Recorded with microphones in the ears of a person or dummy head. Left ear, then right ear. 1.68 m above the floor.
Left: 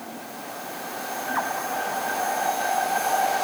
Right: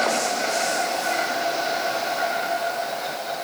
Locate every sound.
Only background noise.